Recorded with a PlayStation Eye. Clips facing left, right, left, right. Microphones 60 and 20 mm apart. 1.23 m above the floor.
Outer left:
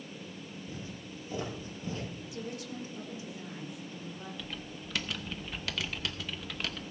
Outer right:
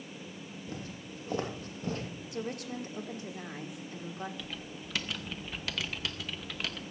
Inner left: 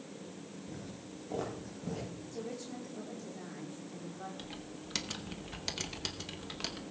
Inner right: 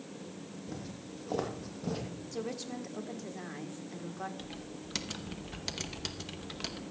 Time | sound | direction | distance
0.7 | footsteps | 65° right (ahead or behind) | 3 m
2.3 | a woman speaking | 60° right (ahead or behind) | 1.3 m
4.4 | typing on a keyboard | centre (ahead or behind) | 0.8 m